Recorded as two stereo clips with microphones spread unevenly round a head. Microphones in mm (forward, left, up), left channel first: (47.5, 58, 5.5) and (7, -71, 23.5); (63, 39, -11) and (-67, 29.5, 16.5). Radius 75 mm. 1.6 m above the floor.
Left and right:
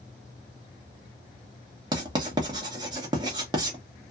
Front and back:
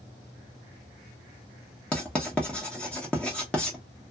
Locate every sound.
1.9 s writing: 90° right, 0.9 m